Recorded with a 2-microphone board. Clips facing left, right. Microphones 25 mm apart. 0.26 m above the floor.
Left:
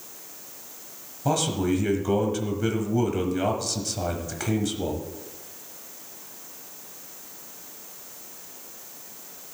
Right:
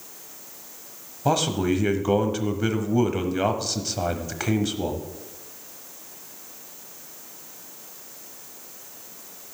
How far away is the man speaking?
About 1.2 m.